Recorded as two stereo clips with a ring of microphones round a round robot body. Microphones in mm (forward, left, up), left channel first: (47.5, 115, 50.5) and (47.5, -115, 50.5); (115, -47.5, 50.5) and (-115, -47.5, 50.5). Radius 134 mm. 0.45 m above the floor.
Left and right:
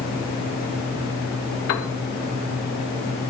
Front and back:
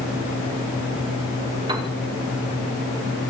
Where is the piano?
110° left, 1.1 m.